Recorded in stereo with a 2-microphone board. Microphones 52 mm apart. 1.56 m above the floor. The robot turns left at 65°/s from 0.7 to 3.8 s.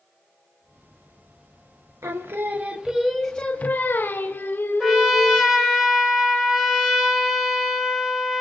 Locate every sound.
2.0 s singing: 110° right, 0.7 m; by 5.5 s 135° left, 0.7 m
4.8 s a trumpet: 15° right (ahead or behind), 1.1 m